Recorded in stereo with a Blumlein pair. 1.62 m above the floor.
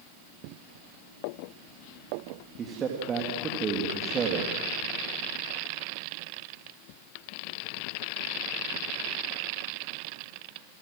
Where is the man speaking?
25° right, 3.5 m.